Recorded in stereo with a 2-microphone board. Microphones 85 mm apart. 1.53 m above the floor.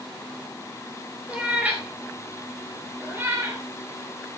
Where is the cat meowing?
15° right (ahead or behind), 3.5 m; by 3.6 s 25° right (ahead or behind), 5 m.